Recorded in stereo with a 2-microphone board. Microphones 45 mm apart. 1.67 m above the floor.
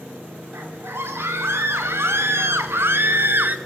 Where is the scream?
75° right (ahead or behind), 5.5 m; by 3.6 s 50° right (ahead or behind), 2 m.